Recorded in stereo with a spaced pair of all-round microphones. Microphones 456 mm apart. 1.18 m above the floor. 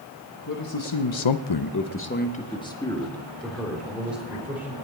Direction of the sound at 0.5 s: 45° left (ahead or behind).